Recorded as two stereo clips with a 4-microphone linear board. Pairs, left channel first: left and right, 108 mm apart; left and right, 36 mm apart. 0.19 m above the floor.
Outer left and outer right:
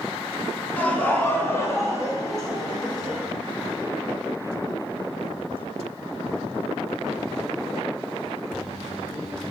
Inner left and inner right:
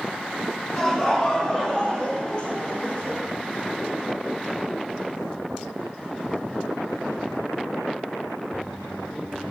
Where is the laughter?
15° left (ahead or behind), 1.8 m; by 3.2 s 40° left (ahead or behind), 1.5 m.